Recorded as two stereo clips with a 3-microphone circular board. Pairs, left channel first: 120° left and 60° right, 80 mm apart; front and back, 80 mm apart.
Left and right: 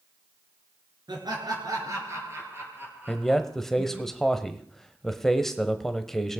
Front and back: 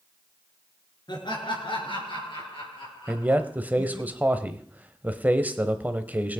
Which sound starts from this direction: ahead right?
Laughter, at 1.1 s.